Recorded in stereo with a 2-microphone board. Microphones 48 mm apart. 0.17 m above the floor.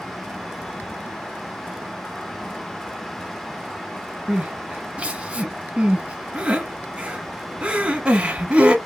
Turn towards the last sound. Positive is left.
turn(degrees=-25)  # may be behind; listen again after turning